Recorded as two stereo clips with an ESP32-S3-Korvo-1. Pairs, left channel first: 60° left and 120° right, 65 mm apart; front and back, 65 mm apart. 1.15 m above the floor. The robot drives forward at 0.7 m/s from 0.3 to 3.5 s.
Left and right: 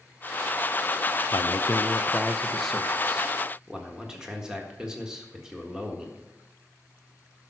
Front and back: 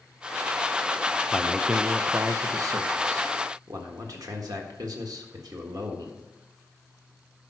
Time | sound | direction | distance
1.3 | a man speaking | 75° left | 0.6 m